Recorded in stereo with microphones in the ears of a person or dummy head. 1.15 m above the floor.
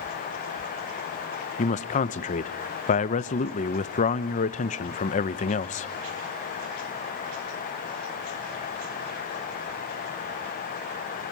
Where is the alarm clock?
I don't hear an alarm clock.